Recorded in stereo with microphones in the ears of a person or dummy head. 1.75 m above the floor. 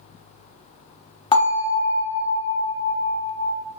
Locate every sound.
1.3 s a bell: 25° left (ahead or behind), 0.5 m